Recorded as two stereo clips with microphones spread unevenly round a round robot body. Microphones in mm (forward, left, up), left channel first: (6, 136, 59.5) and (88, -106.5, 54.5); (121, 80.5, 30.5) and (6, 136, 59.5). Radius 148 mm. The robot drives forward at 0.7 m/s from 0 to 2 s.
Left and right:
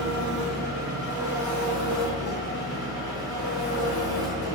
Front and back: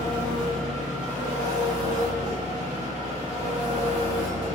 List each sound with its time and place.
0.0 s an engine running: 75° right, 1.3 m; by 4.6 s 140° right, 1.8 m